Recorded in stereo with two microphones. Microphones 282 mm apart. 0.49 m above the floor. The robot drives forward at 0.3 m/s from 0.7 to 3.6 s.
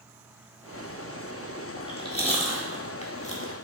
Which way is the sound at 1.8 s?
20° left (ahead or behind).